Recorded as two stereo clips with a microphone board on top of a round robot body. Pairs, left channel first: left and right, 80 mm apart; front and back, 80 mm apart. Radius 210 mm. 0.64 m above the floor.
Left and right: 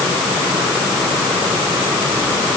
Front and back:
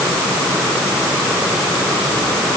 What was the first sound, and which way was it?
Only background noise.